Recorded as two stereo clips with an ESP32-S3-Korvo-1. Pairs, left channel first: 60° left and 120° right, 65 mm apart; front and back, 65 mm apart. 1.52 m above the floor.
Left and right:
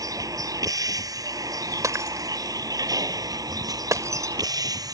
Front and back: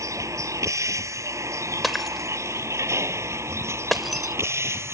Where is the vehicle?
145° right; by 4.9 s 135° right.